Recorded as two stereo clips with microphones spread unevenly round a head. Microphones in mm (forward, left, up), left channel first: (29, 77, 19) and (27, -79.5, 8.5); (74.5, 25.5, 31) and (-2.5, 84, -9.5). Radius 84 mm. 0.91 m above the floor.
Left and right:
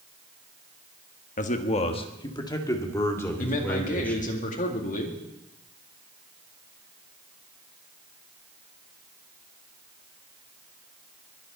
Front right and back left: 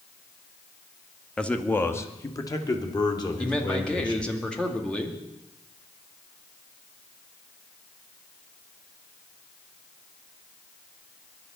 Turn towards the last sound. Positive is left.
turn(degrees=50)